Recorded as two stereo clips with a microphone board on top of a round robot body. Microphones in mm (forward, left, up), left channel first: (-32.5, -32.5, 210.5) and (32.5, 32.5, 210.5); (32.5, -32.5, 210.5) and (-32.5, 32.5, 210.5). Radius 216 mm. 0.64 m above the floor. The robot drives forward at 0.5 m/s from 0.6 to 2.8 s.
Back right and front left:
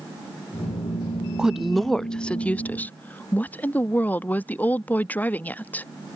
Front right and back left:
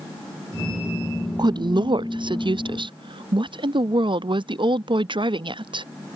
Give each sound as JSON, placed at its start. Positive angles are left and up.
{"t": 1.4, "sound": "a woman speaking", "azimuth_deg": 125}